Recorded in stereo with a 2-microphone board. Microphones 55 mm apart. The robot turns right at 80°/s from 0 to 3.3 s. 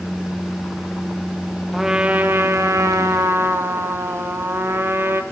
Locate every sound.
1.7 s a trumpet: straight behind, 1.1 m; by 5.2 s 55° right, 1.1 m